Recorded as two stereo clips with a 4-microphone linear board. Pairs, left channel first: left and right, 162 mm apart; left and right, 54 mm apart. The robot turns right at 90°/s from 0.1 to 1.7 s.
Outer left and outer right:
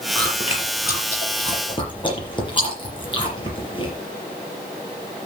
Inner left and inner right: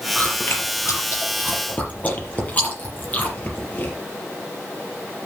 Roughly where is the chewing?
Centre.